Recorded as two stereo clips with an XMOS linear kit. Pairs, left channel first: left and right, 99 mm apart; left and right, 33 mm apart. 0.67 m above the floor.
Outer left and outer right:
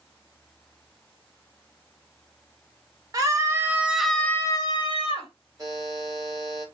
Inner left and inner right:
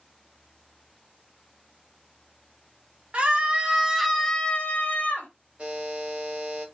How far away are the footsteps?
I don't hear footsteps.